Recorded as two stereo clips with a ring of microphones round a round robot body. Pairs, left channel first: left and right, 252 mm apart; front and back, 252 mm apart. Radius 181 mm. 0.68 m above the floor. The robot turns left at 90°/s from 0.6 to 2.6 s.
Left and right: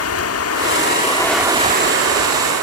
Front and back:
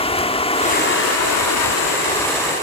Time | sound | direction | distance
0.0 | running water | 70° left | 1.4 m